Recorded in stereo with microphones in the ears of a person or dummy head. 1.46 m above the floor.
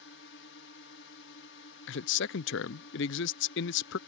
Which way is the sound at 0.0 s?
60° left (ahead or behind).